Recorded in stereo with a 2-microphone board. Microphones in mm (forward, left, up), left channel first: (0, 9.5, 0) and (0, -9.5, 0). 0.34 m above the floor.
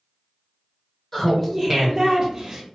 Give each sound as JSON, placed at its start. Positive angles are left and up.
{"t": 1.1, "sound": "laughter", "side_deg": 20, "distance_m": 1.0}